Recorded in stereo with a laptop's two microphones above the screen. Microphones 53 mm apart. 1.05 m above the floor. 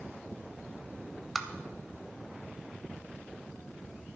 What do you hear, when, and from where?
1.4 s tapping: centre (ahead or behind), 1.0 m